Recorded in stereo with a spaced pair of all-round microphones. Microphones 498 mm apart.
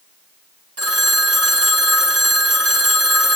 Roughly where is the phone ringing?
Right.